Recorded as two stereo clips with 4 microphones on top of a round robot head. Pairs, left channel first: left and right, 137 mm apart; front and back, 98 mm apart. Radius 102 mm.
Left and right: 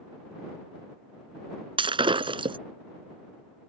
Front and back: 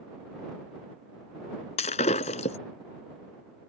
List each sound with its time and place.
1.8 s breaking glass: 35° right